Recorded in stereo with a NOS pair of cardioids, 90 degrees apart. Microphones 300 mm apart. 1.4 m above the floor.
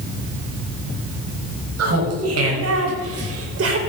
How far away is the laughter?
About 6.5 m.